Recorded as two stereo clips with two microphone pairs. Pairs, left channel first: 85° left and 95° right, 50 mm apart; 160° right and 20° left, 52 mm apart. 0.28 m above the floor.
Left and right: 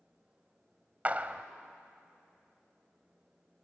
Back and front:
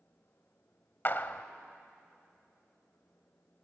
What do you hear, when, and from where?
1.1 s a clap: 140° right, 0.9 m